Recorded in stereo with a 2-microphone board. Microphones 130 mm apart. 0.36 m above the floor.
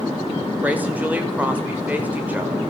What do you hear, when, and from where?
0.6 s a woman speaking: 10° right (ahead or behind), 1.0 m